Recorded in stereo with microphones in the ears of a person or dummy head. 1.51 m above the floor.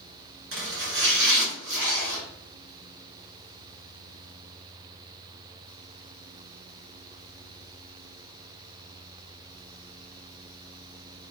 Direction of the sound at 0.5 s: 65° right (ahead or behind).